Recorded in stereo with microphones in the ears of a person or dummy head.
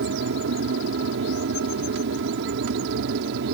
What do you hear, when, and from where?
0.0 s an aircraft: 60° right (ahead or behind)